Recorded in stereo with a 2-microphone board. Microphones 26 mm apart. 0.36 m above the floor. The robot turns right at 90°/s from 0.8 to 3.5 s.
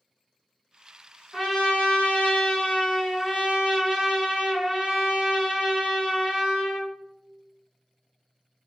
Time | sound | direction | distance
1.3 | a trumpet | 15° left | 1.1 m